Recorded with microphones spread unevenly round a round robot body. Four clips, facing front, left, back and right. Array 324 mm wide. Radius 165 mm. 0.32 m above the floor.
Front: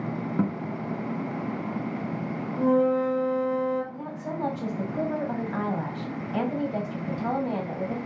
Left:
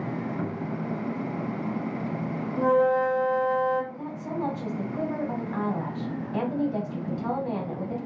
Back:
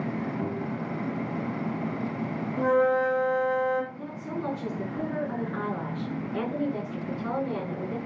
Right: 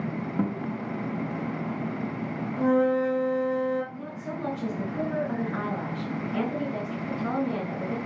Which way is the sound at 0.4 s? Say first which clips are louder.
Right 3 dB, front 3 dB; 30° right.